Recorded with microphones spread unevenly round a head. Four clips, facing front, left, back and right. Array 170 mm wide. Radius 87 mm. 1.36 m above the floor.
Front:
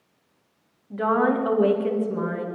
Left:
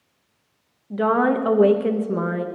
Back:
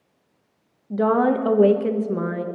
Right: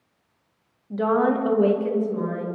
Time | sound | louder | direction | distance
0.9 | a woman speaking | left 2 dB, back 3 dB | 170° left | 1.4 m